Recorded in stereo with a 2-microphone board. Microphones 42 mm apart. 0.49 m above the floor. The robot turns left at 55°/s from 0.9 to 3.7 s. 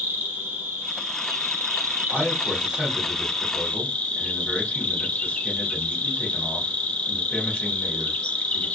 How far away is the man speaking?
About 1.5 m.